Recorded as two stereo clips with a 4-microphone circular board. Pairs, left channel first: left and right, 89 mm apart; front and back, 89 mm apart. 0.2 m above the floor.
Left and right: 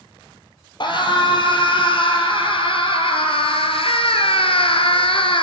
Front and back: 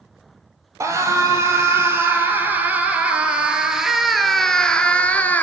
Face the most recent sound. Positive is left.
turn(degrees=70)